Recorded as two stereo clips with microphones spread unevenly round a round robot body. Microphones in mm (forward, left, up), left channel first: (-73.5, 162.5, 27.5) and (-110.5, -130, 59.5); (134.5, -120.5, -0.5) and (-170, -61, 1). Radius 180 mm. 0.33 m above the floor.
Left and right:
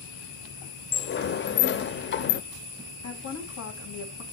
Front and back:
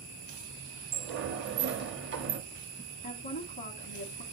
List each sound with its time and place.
0.9 s a sliding door: 120° left, 0.6 m
3.0 s a woman speaking: 50° left, 1.8 m